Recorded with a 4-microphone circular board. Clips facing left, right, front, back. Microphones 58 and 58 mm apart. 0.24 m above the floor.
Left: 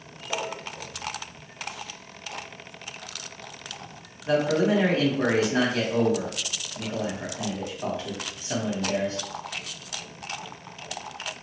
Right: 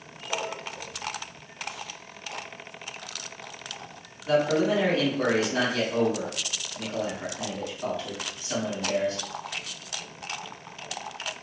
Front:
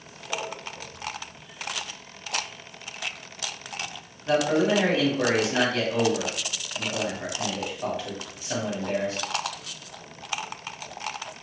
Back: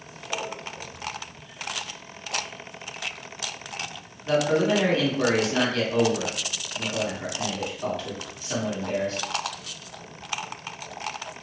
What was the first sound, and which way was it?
A man speaking, 60° left.